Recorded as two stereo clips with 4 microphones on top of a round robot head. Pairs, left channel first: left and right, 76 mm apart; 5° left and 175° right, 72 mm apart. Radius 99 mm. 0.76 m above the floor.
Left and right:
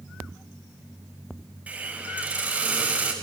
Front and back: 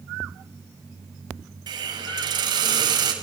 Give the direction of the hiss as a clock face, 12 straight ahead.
5 o'clock.